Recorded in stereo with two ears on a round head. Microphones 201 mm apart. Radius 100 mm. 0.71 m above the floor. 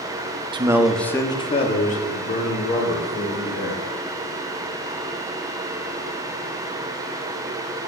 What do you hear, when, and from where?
0.5 s a man speaking: 20° right (ahead or behind), 0.6 m; by 3.8 s 50° left (ahead or behind), 2.5 m